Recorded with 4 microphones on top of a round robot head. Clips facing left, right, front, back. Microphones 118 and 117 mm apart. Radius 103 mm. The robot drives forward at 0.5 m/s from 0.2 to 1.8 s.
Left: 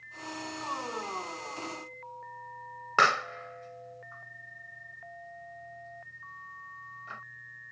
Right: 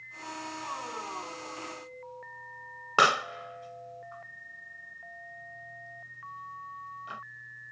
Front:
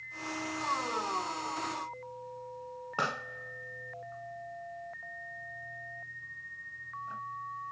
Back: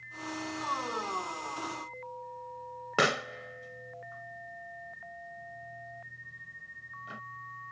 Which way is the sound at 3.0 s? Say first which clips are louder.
Right 1 dB, back 7 dB; 165° right.